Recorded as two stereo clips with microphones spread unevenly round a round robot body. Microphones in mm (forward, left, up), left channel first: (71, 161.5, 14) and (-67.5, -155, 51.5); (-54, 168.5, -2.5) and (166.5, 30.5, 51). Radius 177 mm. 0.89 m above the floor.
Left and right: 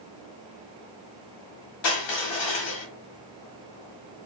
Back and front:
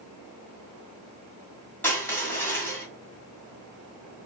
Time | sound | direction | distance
1.8 | crushing | 65° left | 2.5 m